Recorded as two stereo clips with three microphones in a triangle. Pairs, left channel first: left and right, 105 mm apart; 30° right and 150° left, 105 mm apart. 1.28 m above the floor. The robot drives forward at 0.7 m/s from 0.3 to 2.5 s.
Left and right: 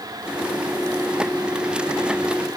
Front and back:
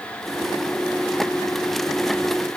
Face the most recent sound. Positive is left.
No sound to turn to.